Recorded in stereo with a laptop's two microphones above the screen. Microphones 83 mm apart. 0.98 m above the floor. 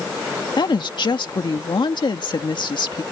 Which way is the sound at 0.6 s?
60° left (ahead or behind).